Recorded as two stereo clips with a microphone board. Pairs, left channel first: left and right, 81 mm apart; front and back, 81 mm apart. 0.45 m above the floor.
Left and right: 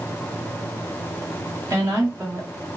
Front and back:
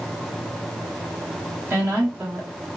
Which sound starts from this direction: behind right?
A woman speaking, at 1.7 s.